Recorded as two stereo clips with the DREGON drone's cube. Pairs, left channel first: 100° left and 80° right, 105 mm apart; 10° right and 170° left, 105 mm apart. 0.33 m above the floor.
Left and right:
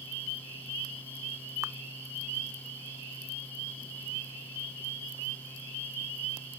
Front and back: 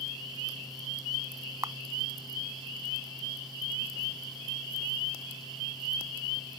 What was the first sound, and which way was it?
A camera shutter, 140° right.